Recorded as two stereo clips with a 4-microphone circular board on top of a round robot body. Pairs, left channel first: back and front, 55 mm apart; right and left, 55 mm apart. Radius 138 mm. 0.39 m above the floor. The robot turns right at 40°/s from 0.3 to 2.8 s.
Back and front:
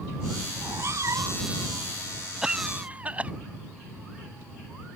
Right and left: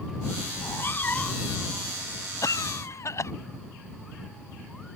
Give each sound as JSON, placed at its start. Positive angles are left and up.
{"t": 0.6, "sound": "a cat meowing", "azimuth_deg": -50}
{"t": 2.4, "sound": "a cough", "azimuth_deg": -80}